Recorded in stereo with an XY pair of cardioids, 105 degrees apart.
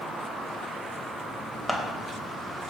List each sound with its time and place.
1.7 s scissors: 10° left, 0.7 m